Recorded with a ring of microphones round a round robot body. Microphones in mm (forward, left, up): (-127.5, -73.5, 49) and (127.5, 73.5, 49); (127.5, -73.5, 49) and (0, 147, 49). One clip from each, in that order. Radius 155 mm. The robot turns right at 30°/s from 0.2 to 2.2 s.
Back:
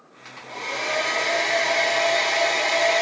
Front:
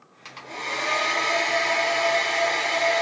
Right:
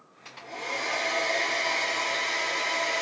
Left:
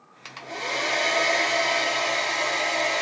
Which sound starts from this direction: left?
A hair dryer, at 0.2 s.